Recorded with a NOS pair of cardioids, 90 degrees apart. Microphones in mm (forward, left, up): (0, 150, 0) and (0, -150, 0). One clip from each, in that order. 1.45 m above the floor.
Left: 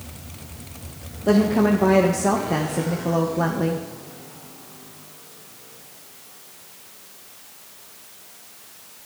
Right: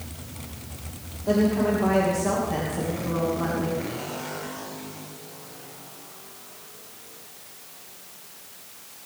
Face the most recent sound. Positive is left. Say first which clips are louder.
# left 4 dB
turn(degrees=55)